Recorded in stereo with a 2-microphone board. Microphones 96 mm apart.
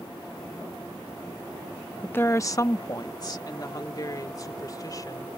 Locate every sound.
2.0 s a woman speaking: 15° left (ahead or behind); by 5.4 s 40° left (ahead or behind)